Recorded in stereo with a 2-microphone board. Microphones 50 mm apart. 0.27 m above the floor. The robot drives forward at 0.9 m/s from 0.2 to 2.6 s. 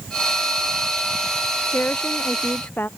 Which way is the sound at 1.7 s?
45° left (ahead or behind).